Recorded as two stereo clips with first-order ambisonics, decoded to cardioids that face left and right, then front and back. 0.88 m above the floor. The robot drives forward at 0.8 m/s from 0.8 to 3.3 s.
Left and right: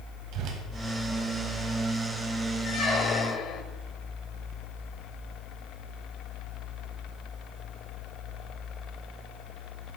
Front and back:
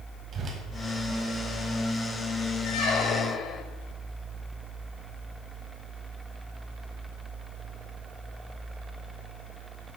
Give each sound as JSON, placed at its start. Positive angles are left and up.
{"t": 0.3, "sound": "a whoosh", "azimuth_deg": -125, "distance_m": 1.7}
{"t": 2.6, "sound": "a squeak", "azimuth_deg": 30, "distance_m": 1.2}